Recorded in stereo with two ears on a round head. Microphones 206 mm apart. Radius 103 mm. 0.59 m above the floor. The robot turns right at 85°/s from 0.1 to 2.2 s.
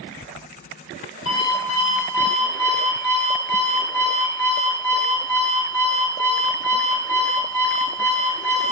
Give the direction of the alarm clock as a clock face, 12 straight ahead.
8 o'clock.